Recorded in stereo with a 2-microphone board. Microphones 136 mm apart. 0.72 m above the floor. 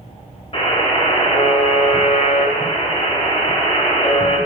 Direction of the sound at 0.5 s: 45° left (ahead or behind).